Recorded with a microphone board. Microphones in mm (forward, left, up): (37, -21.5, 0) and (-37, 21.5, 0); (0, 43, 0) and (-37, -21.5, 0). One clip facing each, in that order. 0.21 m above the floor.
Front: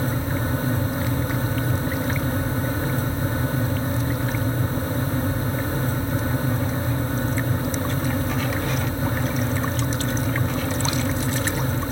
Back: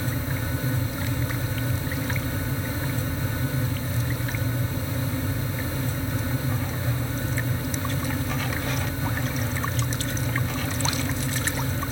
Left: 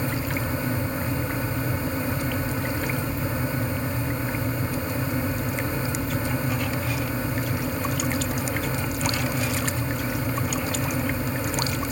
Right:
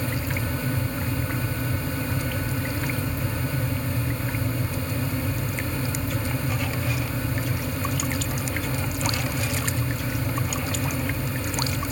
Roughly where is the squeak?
I don't hear a squeak.